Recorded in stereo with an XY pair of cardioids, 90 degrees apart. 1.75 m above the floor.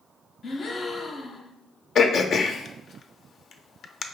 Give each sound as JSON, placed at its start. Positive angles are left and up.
{"t": 0.4, "sound": "a gasp", "azimuth_deg": 50, "distance_m": 0.7}
{"t": 1.9, "sound": "throat clearing", "azimuth_deg": 65, "distance_m": 0.6}